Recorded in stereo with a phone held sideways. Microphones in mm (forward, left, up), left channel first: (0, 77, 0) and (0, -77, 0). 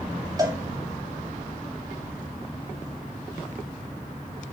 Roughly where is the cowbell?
Right.